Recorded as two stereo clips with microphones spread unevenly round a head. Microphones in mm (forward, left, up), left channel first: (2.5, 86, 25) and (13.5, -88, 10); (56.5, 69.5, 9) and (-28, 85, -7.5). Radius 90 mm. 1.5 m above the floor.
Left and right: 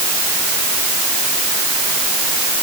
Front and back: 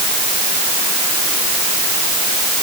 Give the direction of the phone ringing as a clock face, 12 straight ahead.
No phone ringing in this recording.